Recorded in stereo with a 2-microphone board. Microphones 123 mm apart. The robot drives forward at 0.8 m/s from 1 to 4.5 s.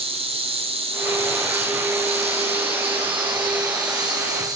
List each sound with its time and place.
0.0 s an insect: 55° right (ahead or behind), 1.8 m; by 4.6 s 30° right (ahead or behind), 2.5 m